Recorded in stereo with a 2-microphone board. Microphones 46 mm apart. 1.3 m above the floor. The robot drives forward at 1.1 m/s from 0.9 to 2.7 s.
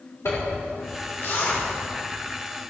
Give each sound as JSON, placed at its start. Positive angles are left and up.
{"t": 0.2, "sound": "a zipper", "side_deg": 80, "distance_m": 4.5}